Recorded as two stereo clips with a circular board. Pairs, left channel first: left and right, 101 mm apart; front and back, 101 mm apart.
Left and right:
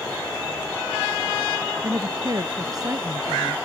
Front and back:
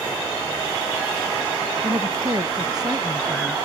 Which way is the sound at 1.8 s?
135° right.